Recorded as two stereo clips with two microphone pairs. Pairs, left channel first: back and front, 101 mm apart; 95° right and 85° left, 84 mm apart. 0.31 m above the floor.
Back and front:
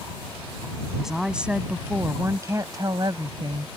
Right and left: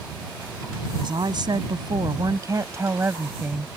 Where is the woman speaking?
85° left; by 3.7 s 15° left.